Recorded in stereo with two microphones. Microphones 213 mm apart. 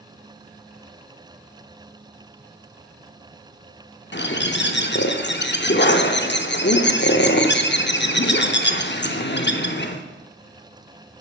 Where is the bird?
60° left (ahead or behind), 0.7 m.